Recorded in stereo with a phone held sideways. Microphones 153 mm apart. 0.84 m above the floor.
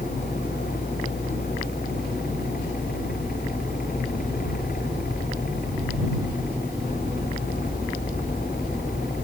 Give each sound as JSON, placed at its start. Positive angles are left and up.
{"t": 0.0, "sound": "a fan", "side_deg": 80}